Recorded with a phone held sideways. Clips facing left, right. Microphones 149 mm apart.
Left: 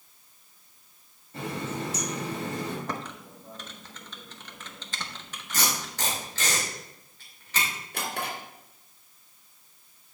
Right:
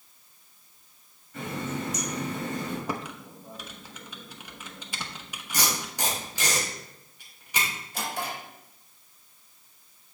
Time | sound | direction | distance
1.3 | a running tap | 35° left (ahead or behind) | 3 m
2.9 | typing on a keyboard | 10° right (ahead or behind) | 0.8 m
5.5 | tape being pulled | 15° right (ahead or behind) | 2.5 m
7.9 | a drawer | 65° left (ahead or behind) | 3 m